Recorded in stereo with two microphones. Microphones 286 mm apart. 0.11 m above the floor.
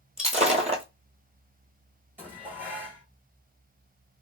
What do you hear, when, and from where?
0.2 s breaking glass: 25° right (ahead or behind), 0.8 m
2.2 s dishes clattering: 5° right (ahead or behind), 1.3 m